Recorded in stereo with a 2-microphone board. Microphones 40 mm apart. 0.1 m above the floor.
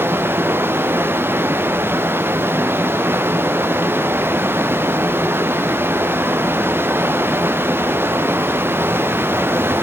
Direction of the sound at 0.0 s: 60° right (ahead or behind).